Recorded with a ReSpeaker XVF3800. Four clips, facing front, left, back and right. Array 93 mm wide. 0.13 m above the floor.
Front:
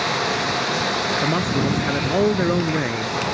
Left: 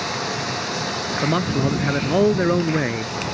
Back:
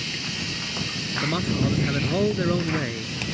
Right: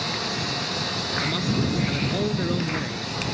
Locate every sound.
0.0 s running water: 10° left
1.2 s a man speaking: 70° left